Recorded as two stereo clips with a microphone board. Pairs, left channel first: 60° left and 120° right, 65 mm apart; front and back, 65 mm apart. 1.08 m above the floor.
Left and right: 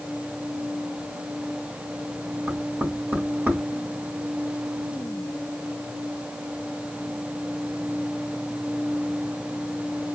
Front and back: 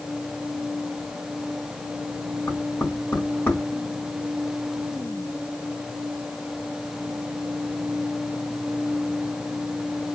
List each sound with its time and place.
2.5 s knocking: 60° right, 3 m